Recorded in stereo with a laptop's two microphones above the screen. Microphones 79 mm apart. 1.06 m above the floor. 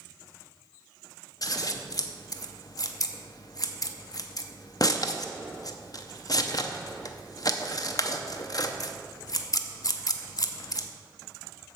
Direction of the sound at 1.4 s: 55° left (ahead or behind).